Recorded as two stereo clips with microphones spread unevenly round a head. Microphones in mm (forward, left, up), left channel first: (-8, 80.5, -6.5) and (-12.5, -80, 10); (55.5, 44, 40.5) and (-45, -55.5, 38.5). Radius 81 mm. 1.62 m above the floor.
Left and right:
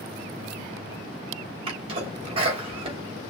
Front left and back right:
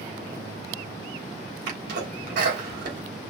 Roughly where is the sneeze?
Behind right.